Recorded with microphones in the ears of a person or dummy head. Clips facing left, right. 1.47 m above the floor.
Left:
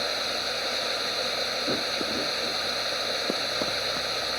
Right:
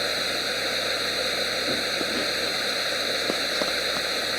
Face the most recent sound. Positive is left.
turn(degrees=-30)  # may be behind; listen again after turning